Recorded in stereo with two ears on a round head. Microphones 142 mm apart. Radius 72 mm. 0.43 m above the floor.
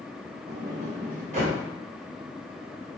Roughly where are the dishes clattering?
No dishes clattering in this recording.